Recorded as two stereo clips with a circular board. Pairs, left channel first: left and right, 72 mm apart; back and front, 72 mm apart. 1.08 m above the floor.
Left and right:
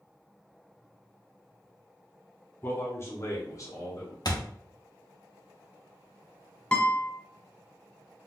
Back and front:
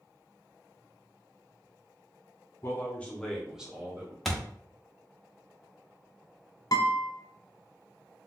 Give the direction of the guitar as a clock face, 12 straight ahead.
7 o'clock.